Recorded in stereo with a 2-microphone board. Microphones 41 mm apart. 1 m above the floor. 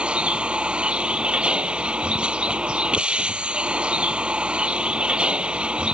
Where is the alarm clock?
I don't hear an alarm clock.